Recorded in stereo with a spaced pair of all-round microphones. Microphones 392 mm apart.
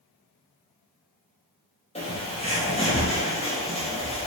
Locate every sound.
1.9 s a bird: 15° left (ahead or behind), 0.7 m